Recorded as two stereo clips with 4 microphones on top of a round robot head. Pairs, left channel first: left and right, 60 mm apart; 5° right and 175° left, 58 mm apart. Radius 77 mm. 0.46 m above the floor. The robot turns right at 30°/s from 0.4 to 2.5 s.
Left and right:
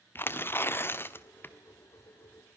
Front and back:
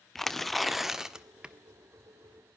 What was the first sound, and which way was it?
Tearing paper, 80° left.